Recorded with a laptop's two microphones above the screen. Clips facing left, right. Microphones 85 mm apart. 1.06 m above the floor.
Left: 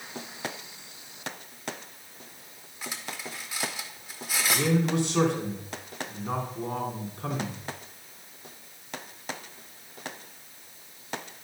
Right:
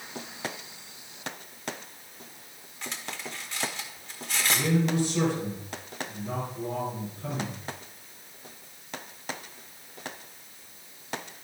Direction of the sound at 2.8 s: 10° left (ahead or behind).